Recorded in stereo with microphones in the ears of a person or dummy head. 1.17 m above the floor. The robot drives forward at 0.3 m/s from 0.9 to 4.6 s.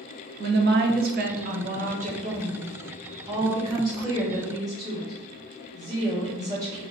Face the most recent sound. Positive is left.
turn(degrees=-15)  # may be behind; listen again after turning